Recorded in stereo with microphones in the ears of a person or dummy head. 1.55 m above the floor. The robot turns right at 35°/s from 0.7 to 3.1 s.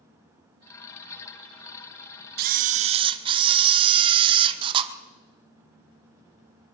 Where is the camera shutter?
55° right (ahead or behind), 0.8 m; by 4.9 s 30° right (ahead or behind), 0.8 m.